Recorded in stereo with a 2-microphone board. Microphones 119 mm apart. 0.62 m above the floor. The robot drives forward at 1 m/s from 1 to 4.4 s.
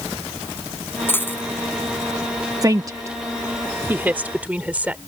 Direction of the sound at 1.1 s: 20° left (ahead or behind).